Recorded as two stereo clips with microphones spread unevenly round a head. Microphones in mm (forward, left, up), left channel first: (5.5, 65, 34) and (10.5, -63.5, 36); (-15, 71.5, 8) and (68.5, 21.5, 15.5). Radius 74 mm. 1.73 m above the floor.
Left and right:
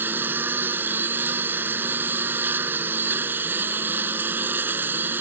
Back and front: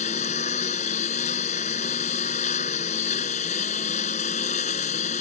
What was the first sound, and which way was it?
A lawn mower, 165° right.